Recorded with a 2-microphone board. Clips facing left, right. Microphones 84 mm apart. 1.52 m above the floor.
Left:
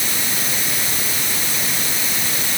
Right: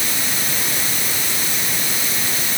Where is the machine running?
No machine running in this recording.